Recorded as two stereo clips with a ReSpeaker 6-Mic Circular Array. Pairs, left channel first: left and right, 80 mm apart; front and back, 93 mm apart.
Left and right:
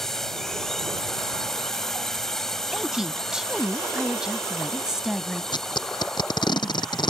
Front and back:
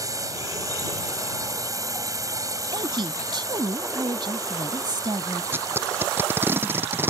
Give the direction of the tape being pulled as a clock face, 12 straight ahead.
8 o'clock.